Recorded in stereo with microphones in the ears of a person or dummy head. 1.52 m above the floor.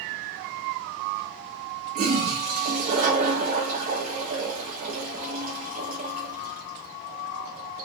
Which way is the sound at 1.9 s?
45° right (ahead or behind).